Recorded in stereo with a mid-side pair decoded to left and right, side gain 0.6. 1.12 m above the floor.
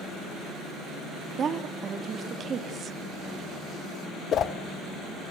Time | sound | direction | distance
1.4 | a woman speaking | 40° right | 2 m
4.3 | a whoosh | 45° left | 1.0 m